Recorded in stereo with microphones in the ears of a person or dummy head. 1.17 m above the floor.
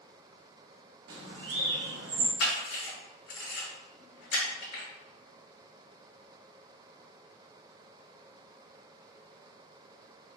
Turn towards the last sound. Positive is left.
turn(degrees=65)  # may be behind; listen again after turning